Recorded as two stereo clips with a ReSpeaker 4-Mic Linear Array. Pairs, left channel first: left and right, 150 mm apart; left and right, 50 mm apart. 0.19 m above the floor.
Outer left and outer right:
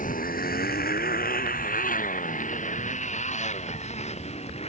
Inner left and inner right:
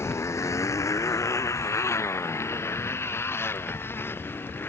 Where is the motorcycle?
65° left (ahead or behind); by 4.7 s 45° left (ahead or behind).